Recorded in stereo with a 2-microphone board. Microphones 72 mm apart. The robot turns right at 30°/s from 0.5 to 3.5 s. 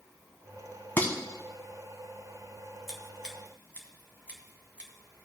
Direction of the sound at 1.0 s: 30° left (ahead or behind).